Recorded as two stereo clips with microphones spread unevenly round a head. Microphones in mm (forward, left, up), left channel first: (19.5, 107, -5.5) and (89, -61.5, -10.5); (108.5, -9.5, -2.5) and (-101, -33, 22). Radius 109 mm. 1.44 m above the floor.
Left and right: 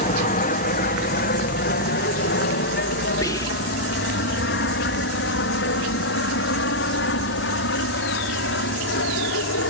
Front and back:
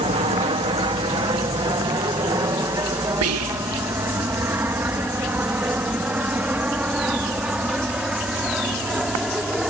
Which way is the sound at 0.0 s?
130° left.